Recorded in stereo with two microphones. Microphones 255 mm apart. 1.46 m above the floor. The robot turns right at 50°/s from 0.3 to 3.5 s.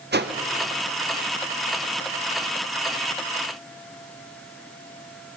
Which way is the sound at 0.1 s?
40° right (ahead or behind).